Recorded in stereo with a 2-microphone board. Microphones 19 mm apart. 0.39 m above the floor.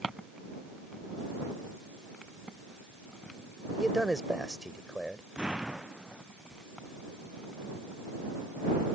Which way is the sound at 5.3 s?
45° right (ahead or behind).